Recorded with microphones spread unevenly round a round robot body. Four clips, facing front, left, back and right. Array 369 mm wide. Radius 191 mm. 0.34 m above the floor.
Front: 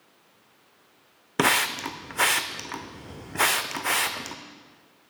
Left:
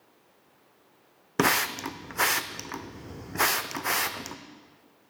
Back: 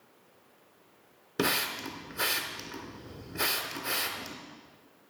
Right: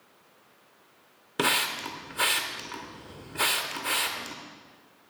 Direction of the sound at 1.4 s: 70° left.